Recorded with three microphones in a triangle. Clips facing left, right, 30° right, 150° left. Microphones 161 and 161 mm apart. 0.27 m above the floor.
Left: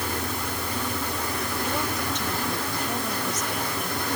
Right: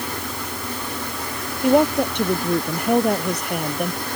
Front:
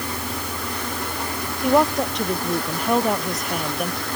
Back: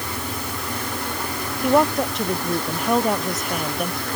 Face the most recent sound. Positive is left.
turn(degrees=-120)